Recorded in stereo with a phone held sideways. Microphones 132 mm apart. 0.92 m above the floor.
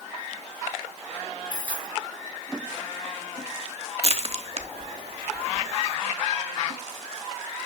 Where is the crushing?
50° right (ahead or behind), 0.9 m.